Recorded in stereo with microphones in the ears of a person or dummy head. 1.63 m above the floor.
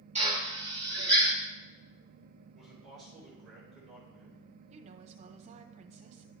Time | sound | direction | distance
0.1 | a drill | 25° right (ahead or behind) | 2 m
2.5 | a man speaking | 5° left (ahead or behind) | 5 m
4.7 | a woman speaking | 40° right (ahead or behind) | 1.0 m